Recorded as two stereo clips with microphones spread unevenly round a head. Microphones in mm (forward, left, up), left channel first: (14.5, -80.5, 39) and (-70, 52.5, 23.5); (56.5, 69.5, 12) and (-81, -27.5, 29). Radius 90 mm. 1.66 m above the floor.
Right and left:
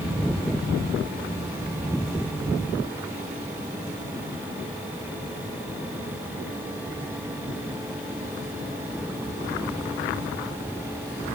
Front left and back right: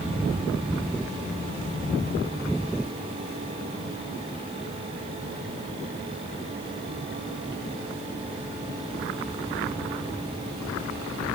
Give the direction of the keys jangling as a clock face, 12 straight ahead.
No keys jangling in this recording.